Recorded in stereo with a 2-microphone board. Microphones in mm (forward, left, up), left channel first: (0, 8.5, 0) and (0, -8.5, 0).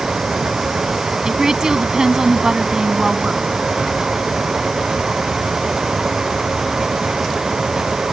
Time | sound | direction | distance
1.2 | a woman speaking | 35° right (ahead or behind) | ?